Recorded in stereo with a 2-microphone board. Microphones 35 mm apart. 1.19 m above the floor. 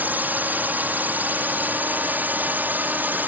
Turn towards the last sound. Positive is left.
turn(degrees=-60)  # may be behind; listen again after turning